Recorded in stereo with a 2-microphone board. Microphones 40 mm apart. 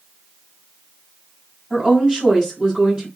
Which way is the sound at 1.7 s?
25° right (ahead or behind).